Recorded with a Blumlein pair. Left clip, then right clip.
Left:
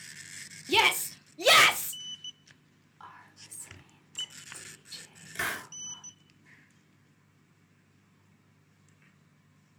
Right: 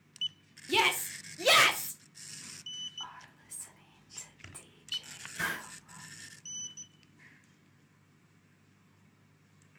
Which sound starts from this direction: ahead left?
A hiss, at 5.3 s.